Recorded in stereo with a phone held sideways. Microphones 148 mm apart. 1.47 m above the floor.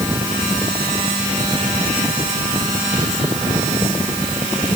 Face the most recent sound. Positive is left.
No sound to turn to.